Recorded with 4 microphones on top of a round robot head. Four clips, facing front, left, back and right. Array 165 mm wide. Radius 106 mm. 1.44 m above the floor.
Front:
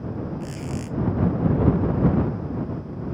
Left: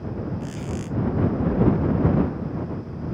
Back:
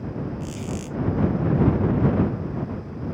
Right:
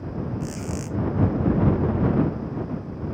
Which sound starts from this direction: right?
A squeak, at 0.4 s.